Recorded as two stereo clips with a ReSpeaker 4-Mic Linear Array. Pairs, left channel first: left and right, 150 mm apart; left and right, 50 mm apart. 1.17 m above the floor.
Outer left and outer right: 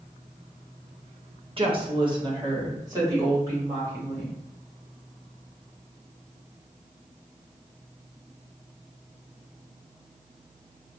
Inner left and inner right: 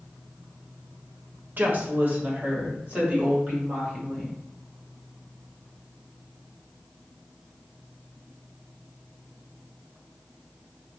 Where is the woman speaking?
40° right (ahead or behind), 0.9 m; by 4.4 s 20° right (ahead or behind), 3 m.